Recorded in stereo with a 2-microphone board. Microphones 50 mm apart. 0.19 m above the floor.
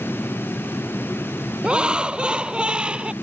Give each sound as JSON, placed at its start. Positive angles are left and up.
{"t": 1.6, "sound": "laughter", "side_deg": -20}